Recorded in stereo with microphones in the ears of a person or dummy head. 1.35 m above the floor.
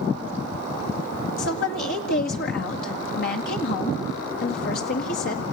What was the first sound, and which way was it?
A woman speaking, 65° left (ahead or behind).